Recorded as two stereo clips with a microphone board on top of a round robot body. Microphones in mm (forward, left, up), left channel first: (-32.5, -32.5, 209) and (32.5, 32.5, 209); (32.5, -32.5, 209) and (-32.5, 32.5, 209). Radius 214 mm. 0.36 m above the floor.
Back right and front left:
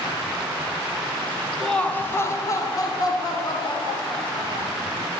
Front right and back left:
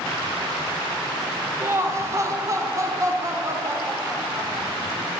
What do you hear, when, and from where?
1.6 s laughter: 145° left, 0.9 m; by 4.8 s 170° right, 2.5 m